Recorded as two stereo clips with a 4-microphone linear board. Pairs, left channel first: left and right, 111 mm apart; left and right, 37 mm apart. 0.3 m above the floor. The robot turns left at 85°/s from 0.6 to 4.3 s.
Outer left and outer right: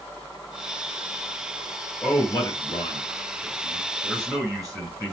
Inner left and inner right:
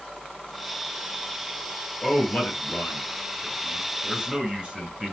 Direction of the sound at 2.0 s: 15° left (ahead or behind).